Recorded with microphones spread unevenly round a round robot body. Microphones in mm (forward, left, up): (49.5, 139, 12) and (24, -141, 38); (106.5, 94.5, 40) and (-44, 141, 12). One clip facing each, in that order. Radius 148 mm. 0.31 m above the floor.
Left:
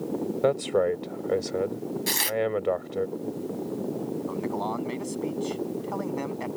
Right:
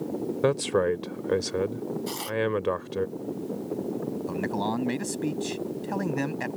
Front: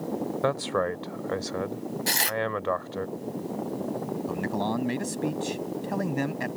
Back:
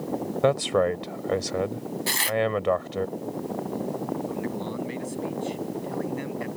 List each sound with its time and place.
0.4 s a man speaking: 150° right
2.1 s tearing paper: 35° left
4.3 s a man speaking: 45° right